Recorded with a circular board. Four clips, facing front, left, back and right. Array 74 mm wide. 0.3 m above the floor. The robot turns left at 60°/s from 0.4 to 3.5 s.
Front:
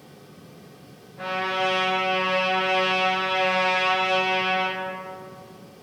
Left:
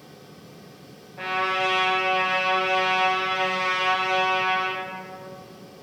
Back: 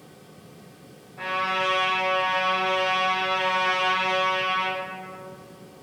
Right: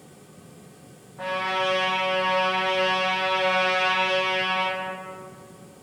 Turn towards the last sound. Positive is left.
turn(degrees=-25)